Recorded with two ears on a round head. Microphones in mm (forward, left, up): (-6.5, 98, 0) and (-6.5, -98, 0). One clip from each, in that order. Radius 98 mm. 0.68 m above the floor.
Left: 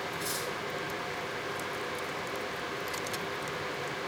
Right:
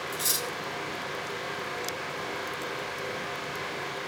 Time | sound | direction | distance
0.1 | cutlery clinking | 55° right (ahead or behind) | 2.5 m